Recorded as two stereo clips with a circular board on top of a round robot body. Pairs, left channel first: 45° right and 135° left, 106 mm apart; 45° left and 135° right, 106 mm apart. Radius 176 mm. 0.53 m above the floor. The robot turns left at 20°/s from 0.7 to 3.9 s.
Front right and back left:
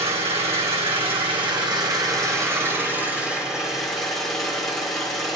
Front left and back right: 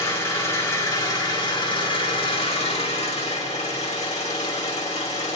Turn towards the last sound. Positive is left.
turn(degrees=45)